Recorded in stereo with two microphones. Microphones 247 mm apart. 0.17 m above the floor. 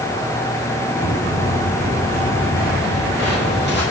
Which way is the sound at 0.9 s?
30° left (ahead or behind).